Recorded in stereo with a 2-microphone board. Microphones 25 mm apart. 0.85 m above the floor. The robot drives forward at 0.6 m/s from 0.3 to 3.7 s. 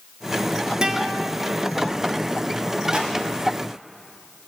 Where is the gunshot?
45° right (ahead or behind), 1.9 m; by 3.1 s 40° right (ahead or behind), 2.0 m.